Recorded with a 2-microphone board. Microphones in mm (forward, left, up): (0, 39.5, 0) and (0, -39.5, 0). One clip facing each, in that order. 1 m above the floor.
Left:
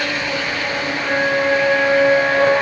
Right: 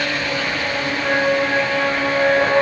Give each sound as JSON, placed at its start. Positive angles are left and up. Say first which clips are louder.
{"t": 1.0, "sound": "a flute", "louder": "left 1 dB", "side_deg": -75, "distance_m": 2.5}